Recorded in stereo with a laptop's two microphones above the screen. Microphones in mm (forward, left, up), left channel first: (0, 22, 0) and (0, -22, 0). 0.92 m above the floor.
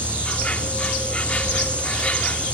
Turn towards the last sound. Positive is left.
turn(degrees=30)  # may be behind; listen again after turning